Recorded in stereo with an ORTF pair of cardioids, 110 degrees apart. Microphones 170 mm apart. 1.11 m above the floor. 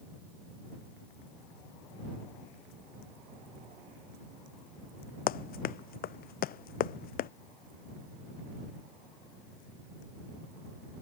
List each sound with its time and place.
5.3 s running footsteps: 65° left